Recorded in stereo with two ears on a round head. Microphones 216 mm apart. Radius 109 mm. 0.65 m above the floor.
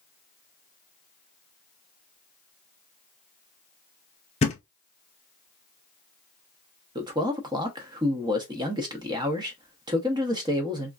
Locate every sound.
4.4 s a thud: 25° left (ahead or behind), 0.7 m
7.0 s a man speaking: 15° right (ahead or behind), 0.6 m